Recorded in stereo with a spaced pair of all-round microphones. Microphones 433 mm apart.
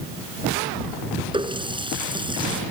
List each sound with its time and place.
1.3 s a running tap: 10° right (ahead or behind)